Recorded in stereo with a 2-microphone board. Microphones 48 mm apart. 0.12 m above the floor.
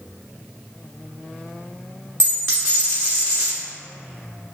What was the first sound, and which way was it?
A dropped coin, 60° right (ahead or behind).